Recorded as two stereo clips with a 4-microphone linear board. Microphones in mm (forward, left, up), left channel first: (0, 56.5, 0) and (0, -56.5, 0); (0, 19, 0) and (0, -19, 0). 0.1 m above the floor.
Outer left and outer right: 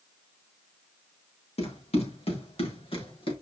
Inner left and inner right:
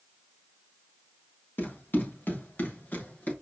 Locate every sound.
1.6 s running footsteps: 65° left (ahead or behind), 4.5 m; by 3.3 s 55° left (ahead or behind), 3.5 m